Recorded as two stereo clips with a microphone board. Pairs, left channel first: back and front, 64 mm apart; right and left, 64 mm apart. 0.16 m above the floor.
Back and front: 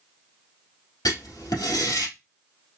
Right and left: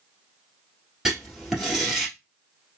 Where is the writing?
175° left, 1.7 m.